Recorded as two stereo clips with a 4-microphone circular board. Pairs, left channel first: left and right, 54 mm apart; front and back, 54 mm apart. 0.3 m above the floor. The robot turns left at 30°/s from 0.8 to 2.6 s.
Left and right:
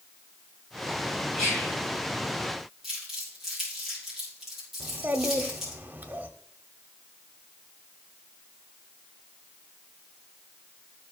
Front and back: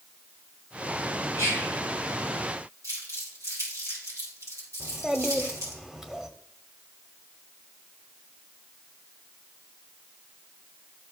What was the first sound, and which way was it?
Whispering, 175° right.